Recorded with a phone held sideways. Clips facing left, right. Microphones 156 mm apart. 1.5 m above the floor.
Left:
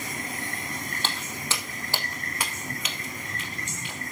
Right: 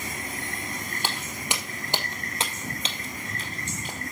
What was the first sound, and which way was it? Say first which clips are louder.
Footsteps: right 2 dB; 15° right (ahead or behind).